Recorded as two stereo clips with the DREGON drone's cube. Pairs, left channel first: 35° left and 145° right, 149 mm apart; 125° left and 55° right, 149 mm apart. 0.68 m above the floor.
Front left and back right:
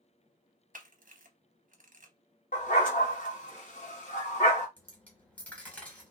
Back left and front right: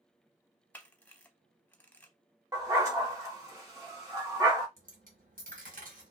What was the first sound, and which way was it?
A camera shutter, 155° right.